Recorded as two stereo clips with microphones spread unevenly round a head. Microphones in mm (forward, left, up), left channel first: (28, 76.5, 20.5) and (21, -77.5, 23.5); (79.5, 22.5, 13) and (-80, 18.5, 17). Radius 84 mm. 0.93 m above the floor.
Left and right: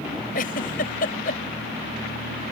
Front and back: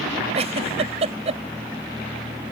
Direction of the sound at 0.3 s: 130° left.